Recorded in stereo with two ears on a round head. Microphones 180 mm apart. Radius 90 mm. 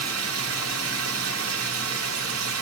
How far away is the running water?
About 1.0 m.